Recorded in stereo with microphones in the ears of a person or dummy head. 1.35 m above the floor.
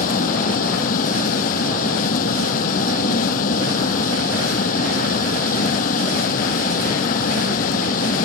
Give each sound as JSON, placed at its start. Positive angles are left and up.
{"t": 0.0, "sound": "a vehicle", "side_deg": 45}